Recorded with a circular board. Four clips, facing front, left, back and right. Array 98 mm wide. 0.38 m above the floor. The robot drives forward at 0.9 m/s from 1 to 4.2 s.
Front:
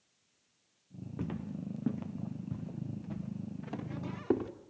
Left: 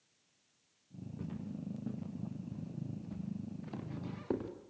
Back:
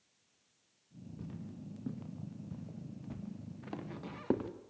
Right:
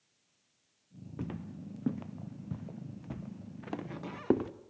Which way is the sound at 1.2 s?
45° right.